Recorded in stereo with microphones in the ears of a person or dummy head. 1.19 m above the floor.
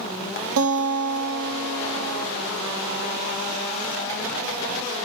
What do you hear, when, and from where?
0.6 s a guitar: 75° right (ahead or behind), 2.5 m